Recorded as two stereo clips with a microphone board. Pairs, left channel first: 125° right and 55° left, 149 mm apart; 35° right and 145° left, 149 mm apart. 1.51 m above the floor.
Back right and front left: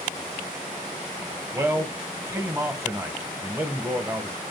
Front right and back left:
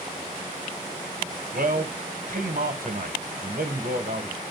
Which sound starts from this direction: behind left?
A man speaking, at 1.5 s.